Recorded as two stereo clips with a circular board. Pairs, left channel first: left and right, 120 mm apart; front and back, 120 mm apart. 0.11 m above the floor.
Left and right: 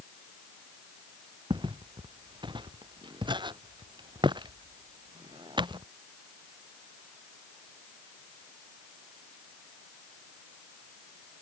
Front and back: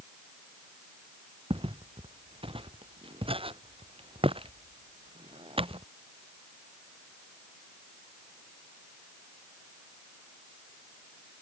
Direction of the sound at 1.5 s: 140° right.